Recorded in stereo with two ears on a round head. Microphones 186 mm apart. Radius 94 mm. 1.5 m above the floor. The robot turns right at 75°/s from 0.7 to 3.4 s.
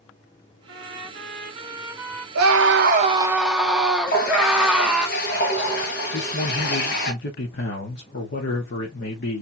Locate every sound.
0.7 s a trumpet: 105° right, 1.6 m; by 2.2 s 10° left, 1.6 m
2.4 s a scream: 85° right, 1.3 m; by 5.1 s 5° right, 1.3 m
4.1 s a running tap: 45° left (ahead or behind), 1.4 m
6.1 s a man speaking: 55° left (ahead or behind), 1.6 m